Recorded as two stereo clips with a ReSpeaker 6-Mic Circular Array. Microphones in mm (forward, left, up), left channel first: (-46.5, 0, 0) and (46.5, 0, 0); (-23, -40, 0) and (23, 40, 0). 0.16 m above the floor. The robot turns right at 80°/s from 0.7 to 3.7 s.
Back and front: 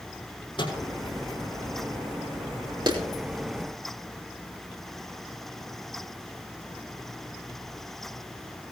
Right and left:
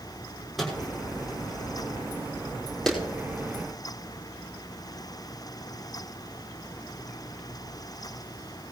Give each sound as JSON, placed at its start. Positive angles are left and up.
{"t": 0.6, "sound": "a microwave", "azimuth_deg": 150, "distance_m": 6.0}
{"t": 2.9, "sound": "a clap", "azimuth_deg": -35, "distance_m": 5.0}